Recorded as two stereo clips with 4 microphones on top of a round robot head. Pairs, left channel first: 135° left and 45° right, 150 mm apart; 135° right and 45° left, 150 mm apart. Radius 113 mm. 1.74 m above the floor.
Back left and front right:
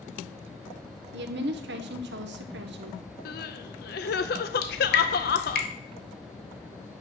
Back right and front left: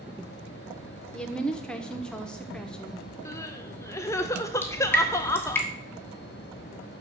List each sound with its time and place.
1.1 s a woman speaking: 50° right, 0.9 m
3.2 s crying: 155° left, 0.6 m
4.6 s dripping: 150° left, 1.4 m